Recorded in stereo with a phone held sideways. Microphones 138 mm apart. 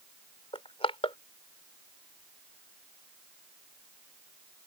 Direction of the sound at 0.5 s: 45° left (ahead or behind).